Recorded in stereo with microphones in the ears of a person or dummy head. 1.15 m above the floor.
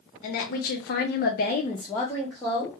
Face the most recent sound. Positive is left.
turn(degrees=-5)  # may be behind; listen again after turning